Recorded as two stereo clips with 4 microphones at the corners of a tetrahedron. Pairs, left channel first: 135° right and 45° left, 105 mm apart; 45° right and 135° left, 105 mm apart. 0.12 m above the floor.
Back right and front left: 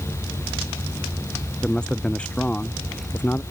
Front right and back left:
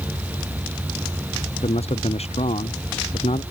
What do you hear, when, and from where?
1.6 s a man speaking: 50° right; by 3.4 s 65° right